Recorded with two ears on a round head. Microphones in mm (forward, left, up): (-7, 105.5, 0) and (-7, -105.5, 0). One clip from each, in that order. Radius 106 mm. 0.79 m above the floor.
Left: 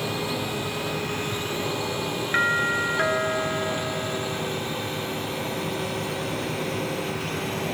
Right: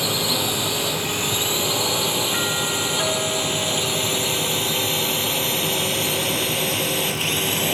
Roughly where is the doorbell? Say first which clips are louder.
Left 1 dB; left.